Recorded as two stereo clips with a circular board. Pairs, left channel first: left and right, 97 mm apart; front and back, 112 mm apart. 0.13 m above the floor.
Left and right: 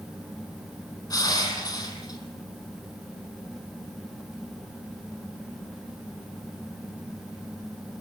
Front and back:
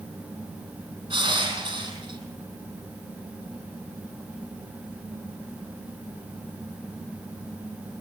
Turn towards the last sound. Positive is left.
turn(degrees=135)